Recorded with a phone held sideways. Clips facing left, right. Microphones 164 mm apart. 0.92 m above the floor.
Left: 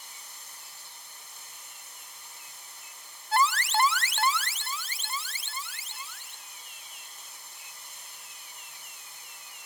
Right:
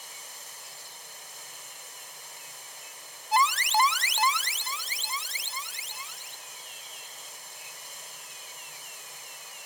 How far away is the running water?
About 2.5 m.